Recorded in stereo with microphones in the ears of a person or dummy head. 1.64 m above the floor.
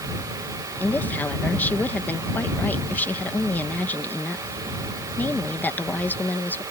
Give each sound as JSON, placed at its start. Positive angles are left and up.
{"t": 0.8, "sound": "a woman speaking", "side_deg": 5}